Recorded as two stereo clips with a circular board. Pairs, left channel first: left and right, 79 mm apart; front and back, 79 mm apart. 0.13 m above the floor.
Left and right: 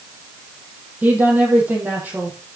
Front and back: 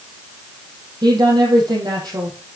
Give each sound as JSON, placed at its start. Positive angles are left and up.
{"t": 1.0, "sound": "a woman speaking", "azimuth_deg": -160, "distance_m": 4.0}